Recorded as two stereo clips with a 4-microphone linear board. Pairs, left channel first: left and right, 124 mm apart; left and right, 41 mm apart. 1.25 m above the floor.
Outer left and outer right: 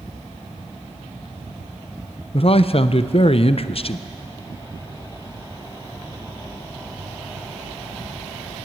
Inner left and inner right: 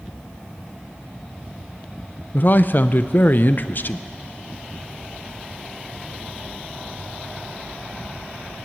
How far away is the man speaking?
About 0.5 m.